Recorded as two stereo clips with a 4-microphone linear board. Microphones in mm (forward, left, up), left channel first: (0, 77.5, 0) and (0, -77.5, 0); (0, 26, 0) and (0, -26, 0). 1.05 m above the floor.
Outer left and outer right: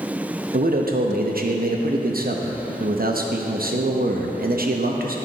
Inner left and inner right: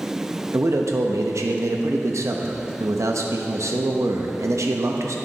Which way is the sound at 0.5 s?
70° right (ahead or behind).